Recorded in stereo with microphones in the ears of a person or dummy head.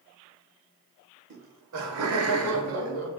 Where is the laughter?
60° right (ahead or behind), 0.8 m; by 3.1 s 70° right (ahead or behind), 1.3 m.